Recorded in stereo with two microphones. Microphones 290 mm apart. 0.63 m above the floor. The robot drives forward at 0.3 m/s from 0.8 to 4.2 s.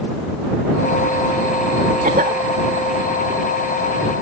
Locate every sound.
2.0 s a cough: 30° right (ahead or behind)